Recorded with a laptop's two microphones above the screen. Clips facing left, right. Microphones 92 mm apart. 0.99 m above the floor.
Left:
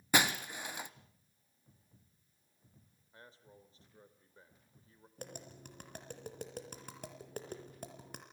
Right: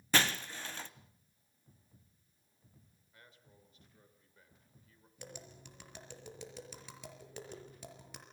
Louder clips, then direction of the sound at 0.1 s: Left 1 dB; 10° left (ahead or behind).